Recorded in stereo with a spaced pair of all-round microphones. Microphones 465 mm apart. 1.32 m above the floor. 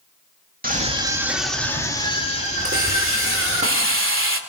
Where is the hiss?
25° right (ahead or behind), 2.5 m.